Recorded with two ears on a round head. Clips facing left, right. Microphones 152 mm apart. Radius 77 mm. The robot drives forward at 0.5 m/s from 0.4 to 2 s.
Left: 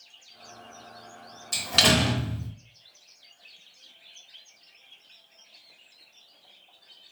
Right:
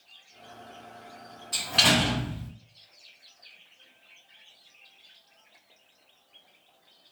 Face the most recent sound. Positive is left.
turn(degrees=50)  # may be behind; listen again after turning